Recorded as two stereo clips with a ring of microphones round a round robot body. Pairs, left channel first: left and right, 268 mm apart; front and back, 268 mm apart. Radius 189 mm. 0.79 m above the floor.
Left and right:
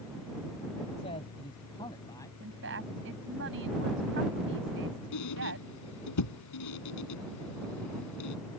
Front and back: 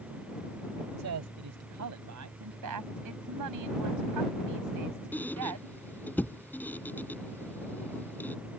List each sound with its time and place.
1.0 s a man speaking: 165° left; by 2.3 s 170° left
2.4 s a woman speaking: 150° right
5.1 s a squeak: 85° left